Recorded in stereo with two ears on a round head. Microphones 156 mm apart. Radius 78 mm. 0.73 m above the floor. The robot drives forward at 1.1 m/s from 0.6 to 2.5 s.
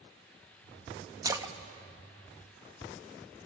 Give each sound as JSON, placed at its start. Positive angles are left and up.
{"t": 1.2, "sound": "a splash", "side_deg": -20, "distance_m": 1.1}